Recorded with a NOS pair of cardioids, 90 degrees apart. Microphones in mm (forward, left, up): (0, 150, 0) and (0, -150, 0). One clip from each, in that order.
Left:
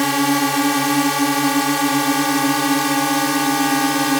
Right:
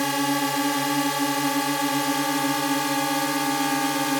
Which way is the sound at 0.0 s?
45° left.